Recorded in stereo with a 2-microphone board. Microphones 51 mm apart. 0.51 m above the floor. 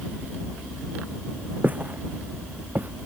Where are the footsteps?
30° right (ahead or behind); by 2.9 s 35° right (ahead or behind).